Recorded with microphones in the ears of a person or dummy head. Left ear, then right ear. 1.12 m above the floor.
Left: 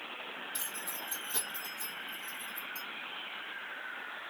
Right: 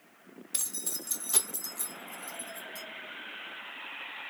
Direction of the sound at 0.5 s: 80° right.